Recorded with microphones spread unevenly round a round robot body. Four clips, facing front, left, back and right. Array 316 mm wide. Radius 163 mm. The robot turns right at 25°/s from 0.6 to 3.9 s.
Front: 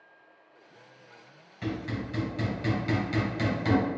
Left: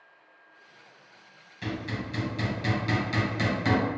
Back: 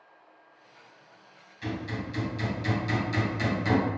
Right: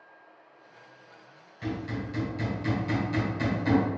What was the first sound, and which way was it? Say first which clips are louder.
Hammering: right 1 dB, front 1 dB; 20° left.